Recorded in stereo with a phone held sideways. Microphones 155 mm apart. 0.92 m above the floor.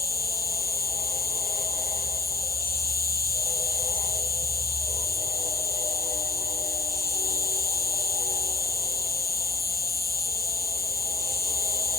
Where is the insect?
70° left (ahead or behind), 0.9 m.